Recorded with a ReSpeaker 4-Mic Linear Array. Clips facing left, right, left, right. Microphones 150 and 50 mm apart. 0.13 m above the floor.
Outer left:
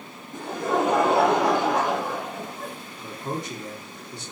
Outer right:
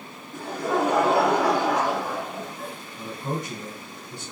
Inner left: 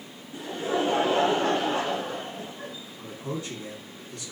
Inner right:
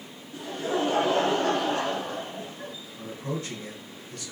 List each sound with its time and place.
0.3 s laughter: 20° left (ahead or behind), 1.2 m
3.0 s a man speaking: 50° right (ahead or behind), 2.0 m